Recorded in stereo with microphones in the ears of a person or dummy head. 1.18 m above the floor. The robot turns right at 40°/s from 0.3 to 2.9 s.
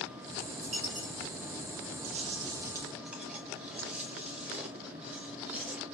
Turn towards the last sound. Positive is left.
turn(degrees=-10)